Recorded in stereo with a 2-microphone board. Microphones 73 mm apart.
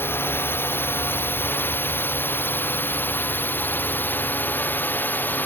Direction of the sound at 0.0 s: 30° left (ahead or behind).